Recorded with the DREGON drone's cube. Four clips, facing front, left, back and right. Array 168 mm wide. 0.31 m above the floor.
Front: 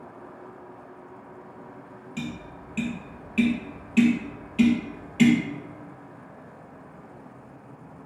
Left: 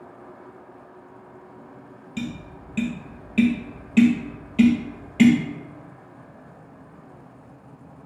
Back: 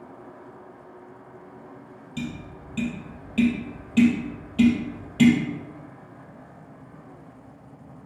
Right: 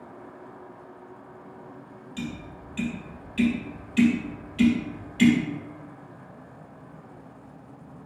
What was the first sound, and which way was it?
Tapping, 105° left.